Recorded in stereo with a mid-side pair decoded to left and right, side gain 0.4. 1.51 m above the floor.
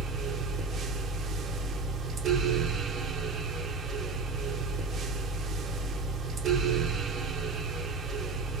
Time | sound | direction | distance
0.0 | a fan | 60° right | 1.1 m